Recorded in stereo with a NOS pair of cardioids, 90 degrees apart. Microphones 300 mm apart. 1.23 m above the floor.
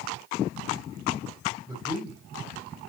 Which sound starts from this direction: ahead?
A man speaking, at 1.7 s.